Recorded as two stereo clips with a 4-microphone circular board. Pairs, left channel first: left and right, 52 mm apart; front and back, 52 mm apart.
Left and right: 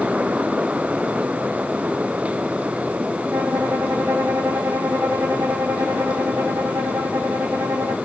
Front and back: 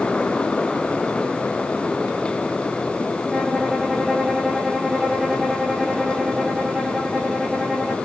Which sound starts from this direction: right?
A violin, at 3.3 s.